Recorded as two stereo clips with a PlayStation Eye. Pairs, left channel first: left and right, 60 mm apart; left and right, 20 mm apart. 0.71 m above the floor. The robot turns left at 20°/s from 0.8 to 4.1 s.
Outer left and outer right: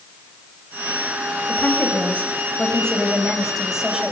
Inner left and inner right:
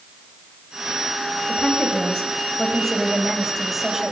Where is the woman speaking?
35° left, 4.5 m; by 4.1 s 15° right, 4.5 m.